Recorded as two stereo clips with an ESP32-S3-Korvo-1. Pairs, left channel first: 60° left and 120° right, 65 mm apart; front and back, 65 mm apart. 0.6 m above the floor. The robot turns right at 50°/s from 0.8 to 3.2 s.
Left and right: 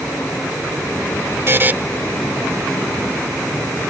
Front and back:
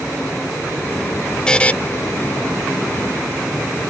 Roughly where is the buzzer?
Right.